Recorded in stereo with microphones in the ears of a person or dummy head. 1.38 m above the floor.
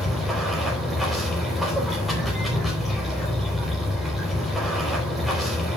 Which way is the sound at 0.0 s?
Centre (ahead or behind).